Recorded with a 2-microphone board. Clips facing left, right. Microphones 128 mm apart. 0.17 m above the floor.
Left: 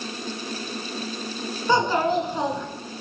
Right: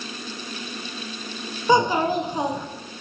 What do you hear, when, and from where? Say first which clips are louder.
1.7 s a child speaking: right 2 dB; 15° right (ahead or behind), 0.9 m